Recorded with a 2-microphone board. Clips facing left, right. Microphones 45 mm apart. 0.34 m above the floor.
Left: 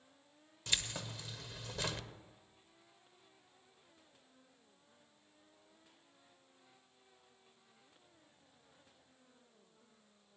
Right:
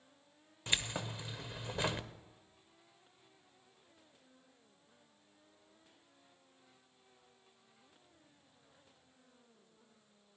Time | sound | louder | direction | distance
0.7 | keys jangling | right 3 dB | 20° right (ahead or behind) | 0.6 m